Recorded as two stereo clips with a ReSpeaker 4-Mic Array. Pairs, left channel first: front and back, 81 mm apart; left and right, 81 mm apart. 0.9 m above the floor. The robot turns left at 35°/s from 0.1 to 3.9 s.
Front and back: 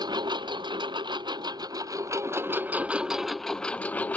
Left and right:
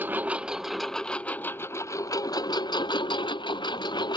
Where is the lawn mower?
155° right; by 4.2 s 70° left.